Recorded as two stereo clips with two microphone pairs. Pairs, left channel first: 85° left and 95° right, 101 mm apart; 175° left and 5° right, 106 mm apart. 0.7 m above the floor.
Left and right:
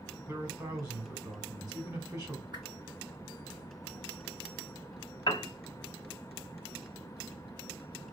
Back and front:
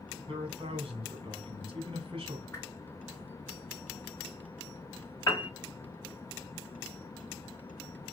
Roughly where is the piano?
Behind left.